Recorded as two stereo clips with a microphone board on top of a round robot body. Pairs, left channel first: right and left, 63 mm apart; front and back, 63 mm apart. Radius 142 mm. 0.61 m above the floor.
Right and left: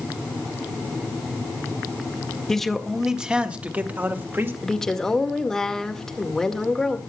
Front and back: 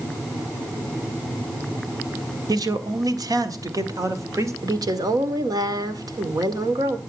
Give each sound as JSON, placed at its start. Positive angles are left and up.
{"t": 2.5, "sound": "a man speaking", "azimuth_deg": -175, "distance_m": 1.7}
{"t": 4.6, "sound": "a woman speaking", "azimuth_deg": -175, "distance_m": 2.0}